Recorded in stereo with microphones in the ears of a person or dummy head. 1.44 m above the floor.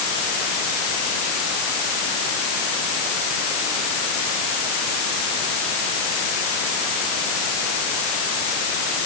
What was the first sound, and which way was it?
Only background noise.